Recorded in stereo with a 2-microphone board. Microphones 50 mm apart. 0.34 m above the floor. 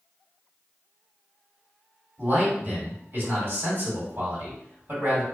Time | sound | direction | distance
2.2 | a man speaking | 45° right (ahead or behind) | 1.6 m